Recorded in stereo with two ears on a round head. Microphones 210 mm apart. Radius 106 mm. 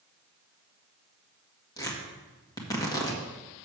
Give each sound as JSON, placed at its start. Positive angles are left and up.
{"t": 1.8, "sound": "tearing paper", "side_deg": 15, "distance_m": 1.7}